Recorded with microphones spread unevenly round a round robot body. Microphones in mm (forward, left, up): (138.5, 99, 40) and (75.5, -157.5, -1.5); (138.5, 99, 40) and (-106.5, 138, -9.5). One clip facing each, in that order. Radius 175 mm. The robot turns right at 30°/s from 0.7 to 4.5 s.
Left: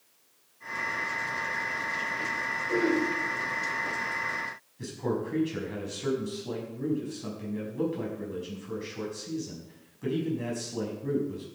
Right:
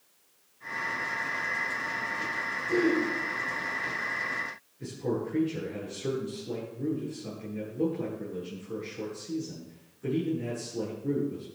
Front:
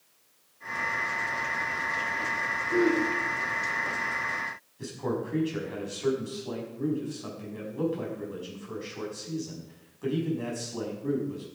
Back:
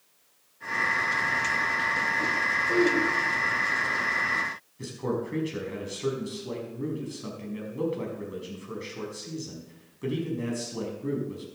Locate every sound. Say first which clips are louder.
2.7 s throat clearing: right 1 dB, even; 170° right, 4.5 m; by 3.0 s 160° right, 4.5 m
4.8 s a man speaking: even, back 1 dB; 110° left, 5.5 m